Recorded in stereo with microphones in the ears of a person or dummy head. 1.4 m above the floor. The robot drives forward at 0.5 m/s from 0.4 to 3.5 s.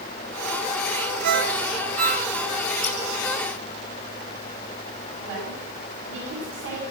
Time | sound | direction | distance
1.2 | a ringtone | 55° right (ahead or behind) | 1.0 m
2.8 | scissors | 5° left (ahead or behind) | 6.5 m
5.2 | a woman speaking | 80° right | 9 m